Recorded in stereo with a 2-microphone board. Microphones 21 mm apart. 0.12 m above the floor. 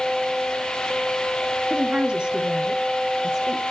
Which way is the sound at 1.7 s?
35° right (ahead or behind).